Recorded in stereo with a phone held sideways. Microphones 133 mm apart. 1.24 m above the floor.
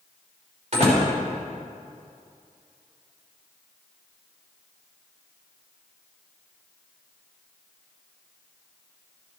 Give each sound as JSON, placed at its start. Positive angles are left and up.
{"t": 0.7, "sound": "a door slam", "side_deg": -55, "distance_m": 2.5}